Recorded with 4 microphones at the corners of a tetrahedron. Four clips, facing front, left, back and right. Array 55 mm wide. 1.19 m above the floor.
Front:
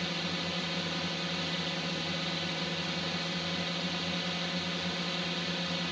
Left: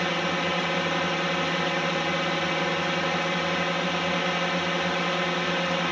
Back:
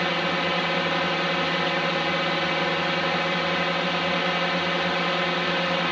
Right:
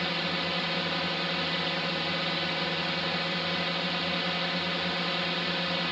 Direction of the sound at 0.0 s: 150° left.